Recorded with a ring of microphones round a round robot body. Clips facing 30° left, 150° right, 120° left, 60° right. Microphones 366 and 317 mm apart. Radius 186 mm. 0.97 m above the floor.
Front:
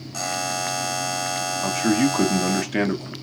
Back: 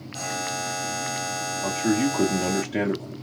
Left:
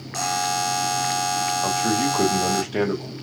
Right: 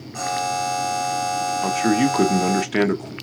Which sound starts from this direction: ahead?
A man speaking, at 1.6 s.